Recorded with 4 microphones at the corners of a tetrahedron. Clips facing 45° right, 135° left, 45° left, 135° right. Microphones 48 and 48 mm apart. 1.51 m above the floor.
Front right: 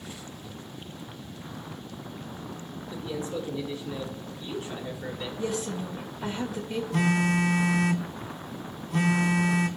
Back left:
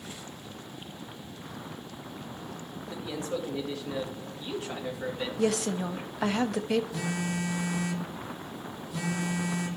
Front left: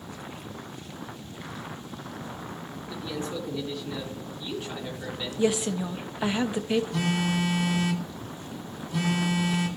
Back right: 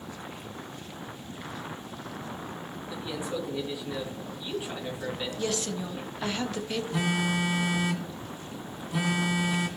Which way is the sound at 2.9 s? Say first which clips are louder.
Front right 1 dB, front left 1 dB; 145° left.